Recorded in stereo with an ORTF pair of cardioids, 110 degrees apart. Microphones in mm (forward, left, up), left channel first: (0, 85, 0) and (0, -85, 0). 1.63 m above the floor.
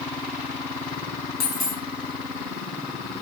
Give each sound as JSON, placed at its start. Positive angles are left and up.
{"t": 1.4, "sound": "a dropped coin", "azimuth_deg": 65, "distance_m": 4.5}